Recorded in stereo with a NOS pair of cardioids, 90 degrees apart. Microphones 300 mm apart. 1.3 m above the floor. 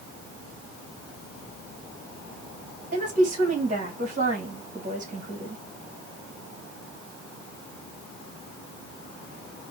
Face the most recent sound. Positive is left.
turn(degrees=-25)